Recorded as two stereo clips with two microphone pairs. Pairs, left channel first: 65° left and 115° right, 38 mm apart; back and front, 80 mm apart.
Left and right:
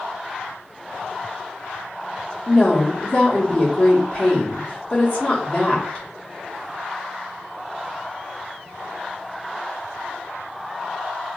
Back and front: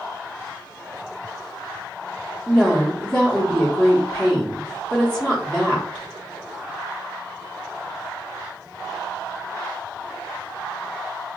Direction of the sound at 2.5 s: 105° left.